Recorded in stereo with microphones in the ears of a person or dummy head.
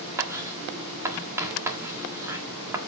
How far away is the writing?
About 1.8 m.